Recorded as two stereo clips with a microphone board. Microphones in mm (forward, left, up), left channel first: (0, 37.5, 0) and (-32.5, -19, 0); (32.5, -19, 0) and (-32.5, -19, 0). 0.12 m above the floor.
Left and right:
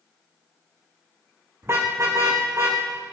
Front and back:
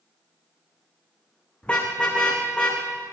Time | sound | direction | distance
1.6 | a car horn | 70° right | 4.5 m